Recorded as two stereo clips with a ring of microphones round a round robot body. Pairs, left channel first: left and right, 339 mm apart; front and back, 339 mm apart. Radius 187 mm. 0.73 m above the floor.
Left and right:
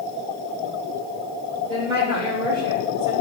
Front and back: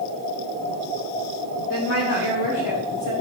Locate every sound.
1.7 s a woman speaking: 15° right, 3 m; by 3.1 s 10° right, 4 m